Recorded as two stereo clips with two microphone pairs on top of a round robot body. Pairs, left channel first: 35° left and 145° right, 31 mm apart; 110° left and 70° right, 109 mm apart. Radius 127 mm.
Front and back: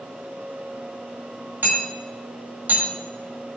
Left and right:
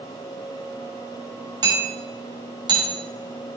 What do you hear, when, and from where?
1.6 s hammering: 120° right, 3.5 m